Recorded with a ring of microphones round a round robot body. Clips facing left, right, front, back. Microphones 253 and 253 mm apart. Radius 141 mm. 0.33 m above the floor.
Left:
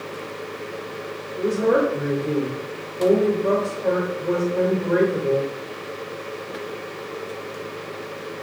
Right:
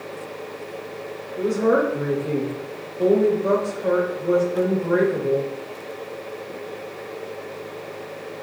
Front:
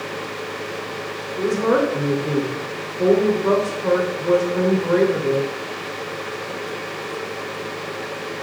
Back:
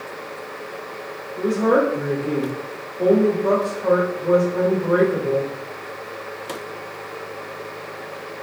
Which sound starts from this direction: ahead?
A woman speaking, at 1.4 s.